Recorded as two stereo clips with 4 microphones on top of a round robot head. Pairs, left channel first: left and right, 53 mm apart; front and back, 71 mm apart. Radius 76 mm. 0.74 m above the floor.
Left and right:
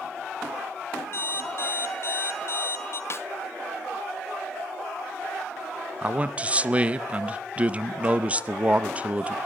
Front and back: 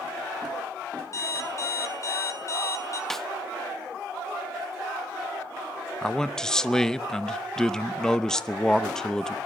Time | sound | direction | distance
1.1 | an alarm clock | 50° left | 3 m
3.1 | a snare drum | 85° left | 1.1 m
6.0 | a man speaking | 70° right | 0.9 m